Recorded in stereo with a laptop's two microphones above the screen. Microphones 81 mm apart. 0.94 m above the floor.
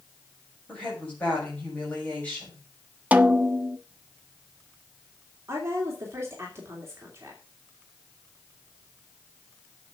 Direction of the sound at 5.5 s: 35° right (ahead or behind).